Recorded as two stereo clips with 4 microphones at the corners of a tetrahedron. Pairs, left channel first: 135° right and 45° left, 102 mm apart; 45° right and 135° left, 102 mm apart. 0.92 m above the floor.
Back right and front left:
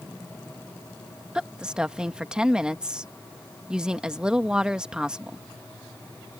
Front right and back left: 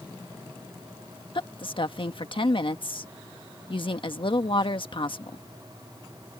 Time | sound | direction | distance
1.4 | a woman speaking | 35° right | ?